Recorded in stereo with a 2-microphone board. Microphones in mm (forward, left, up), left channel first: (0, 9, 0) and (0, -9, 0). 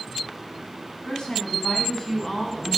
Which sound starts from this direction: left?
A woman speaking, at 1.1 s.